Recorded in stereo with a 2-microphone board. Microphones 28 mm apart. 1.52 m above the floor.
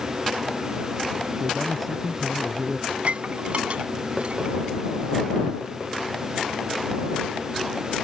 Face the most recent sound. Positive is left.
turn(degrees=-50)  # may be behind; listen again after turning